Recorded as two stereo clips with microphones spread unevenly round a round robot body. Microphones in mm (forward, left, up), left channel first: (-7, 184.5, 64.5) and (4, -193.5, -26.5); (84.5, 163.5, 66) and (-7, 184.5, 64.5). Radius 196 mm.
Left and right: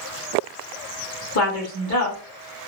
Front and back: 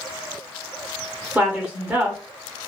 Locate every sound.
1.4 s a woman speaking: 120° left, 1.0 m